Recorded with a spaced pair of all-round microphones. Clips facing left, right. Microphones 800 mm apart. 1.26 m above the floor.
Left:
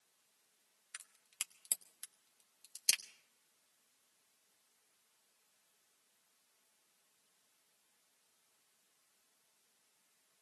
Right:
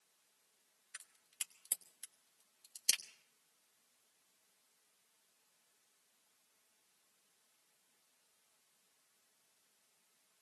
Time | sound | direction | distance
0.9 | a crack | 45° left (ahead or behind) | 0.9 m